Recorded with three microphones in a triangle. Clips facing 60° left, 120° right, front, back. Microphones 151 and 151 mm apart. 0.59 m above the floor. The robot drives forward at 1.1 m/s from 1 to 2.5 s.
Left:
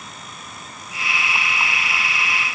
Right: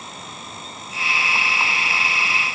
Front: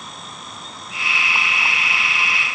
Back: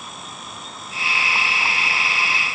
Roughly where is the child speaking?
I don't hear a child speaking.